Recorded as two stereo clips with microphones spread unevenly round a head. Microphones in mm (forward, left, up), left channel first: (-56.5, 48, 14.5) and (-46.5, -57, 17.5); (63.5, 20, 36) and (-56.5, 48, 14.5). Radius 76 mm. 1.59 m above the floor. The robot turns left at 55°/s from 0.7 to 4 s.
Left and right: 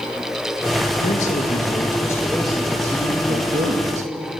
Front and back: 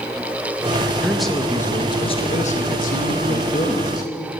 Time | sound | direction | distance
1.0 | a man speaking | 85° left | 1.9 m